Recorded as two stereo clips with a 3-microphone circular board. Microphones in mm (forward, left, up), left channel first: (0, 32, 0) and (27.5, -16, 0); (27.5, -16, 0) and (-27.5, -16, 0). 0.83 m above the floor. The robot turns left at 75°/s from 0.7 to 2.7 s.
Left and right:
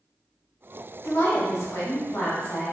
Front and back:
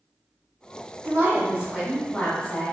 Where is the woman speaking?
155° left, 1.1 m; by 2.8 s 35° left, 1.1 m.